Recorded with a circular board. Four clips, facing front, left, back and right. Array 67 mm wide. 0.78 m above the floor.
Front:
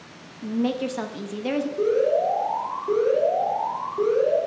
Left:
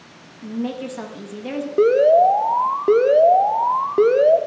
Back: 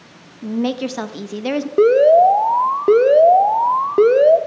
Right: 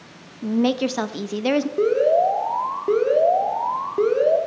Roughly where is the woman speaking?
Behind right.